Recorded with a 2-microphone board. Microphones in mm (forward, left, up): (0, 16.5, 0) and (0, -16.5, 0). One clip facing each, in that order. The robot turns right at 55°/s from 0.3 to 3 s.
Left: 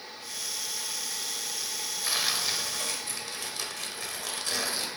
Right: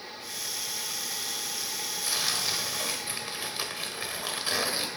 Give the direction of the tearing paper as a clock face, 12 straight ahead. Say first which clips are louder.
Left 1 dB; 7 o'clock.